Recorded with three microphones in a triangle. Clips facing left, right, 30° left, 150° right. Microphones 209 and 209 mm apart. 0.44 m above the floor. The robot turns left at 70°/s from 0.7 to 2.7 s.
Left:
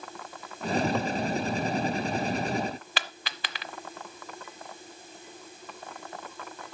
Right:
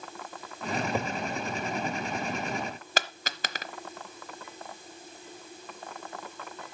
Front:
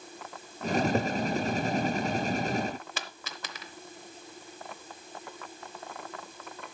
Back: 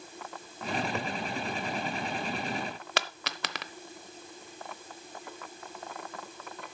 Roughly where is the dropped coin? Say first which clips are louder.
Right 4 dB, back 7 dB; behind right.